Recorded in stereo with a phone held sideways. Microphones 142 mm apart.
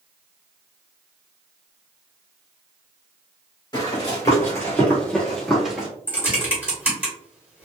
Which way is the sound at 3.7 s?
30° left (ahead or behind).